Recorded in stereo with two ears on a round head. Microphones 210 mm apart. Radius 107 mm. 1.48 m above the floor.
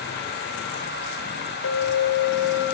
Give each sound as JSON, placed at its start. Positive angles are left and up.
{"t": 1.6, "sound": "a clink", "side_deg": 70, "distance_m": 4.0}